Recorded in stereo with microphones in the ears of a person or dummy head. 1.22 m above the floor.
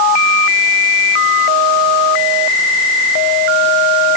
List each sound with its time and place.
Only background noise.